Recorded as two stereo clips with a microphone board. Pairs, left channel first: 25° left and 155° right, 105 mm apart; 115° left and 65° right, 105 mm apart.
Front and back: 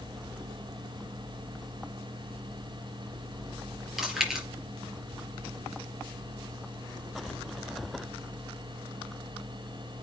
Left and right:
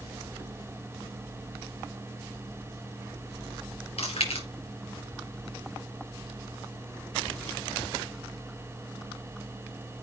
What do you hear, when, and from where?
4.0 s chewing: 115° left, 5 m